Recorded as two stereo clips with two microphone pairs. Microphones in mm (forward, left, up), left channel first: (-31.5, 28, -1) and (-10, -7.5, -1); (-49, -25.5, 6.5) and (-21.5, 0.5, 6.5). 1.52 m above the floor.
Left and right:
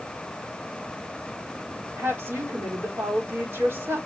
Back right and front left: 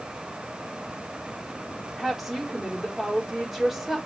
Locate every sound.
2.0 s a woman speaking: 45° right, 4 m